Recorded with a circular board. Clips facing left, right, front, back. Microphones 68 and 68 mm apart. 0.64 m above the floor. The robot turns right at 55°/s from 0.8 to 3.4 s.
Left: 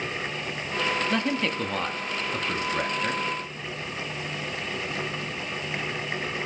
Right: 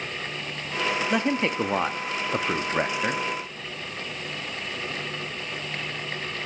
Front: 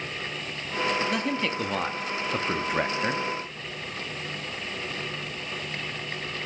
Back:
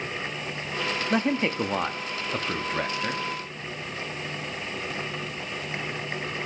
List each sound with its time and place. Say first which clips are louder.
1.1 s a man speaking: right 2 dB, back 3 dB; 150° right, 0.6 m; by 3.2 s 35° right, 0.6 m